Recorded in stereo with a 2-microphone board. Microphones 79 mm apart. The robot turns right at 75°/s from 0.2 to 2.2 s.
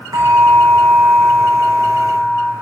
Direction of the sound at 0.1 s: 130° right.